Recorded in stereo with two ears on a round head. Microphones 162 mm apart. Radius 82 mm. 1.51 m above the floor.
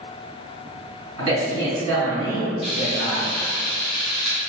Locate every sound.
1.2 s a man speaking: 85° right, 1.7 m
2.6 s frying: centre (ahead or behind), 1.0 m